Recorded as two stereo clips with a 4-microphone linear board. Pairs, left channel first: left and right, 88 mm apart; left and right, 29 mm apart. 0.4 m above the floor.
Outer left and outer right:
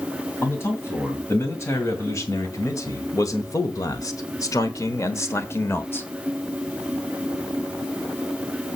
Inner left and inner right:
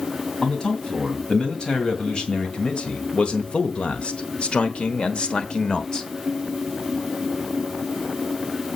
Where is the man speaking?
30° left (ahead or behind), 2.5 m; by 6.1 s 25° left (ahead or behind), 1.3 m.